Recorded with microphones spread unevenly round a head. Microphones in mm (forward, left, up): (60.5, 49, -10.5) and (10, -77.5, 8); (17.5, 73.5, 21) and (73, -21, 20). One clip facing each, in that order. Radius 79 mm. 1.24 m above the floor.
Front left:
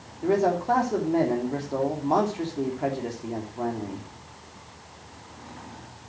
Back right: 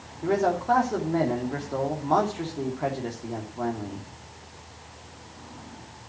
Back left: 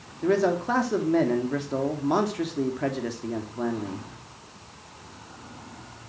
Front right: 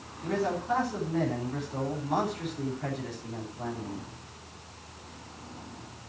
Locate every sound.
0.2 s a man speaking: 150° left, 2.5 m